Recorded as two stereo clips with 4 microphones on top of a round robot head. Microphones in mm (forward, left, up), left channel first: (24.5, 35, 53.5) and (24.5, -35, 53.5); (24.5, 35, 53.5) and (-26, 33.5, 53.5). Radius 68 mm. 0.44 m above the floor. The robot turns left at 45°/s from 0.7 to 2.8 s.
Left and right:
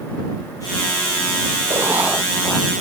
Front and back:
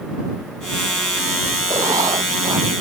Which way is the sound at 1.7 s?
150° right.